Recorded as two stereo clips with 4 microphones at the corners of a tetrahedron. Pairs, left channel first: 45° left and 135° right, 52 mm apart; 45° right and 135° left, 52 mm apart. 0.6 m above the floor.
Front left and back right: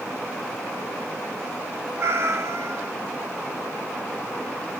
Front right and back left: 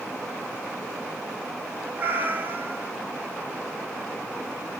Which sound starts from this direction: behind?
A cat meowing, at 2.0 s.